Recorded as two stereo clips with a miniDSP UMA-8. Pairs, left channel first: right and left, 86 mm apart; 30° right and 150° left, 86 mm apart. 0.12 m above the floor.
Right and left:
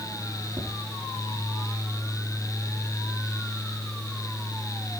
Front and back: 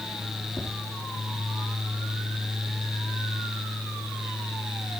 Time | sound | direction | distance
0.6 | tapping | 55° left | 6 m